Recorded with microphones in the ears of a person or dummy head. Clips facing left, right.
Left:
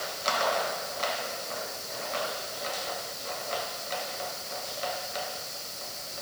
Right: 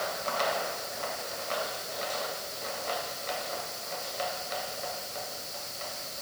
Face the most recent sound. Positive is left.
No sound to turn to.